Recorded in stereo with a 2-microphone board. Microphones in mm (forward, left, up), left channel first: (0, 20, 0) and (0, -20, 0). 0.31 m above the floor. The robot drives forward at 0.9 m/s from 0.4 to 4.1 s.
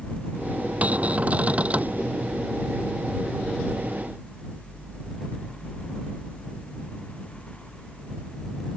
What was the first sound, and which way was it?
A cupboard door, 40° right (ahead or behind).